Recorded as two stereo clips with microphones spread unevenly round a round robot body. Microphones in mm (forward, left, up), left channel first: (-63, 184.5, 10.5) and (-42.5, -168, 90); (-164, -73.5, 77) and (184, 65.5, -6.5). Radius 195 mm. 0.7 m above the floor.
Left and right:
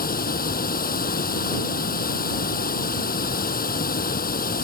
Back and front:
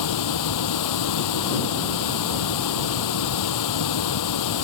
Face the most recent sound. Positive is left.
turn(degrees=160)